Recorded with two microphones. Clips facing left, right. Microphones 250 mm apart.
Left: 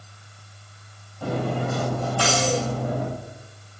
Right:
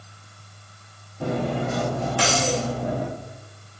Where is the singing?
I don't hear singing.